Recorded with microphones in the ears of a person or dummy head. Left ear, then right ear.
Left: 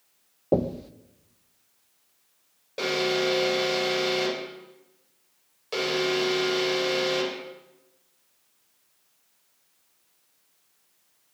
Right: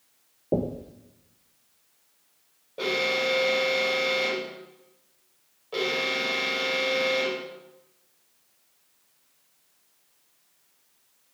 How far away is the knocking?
About 1.3 m.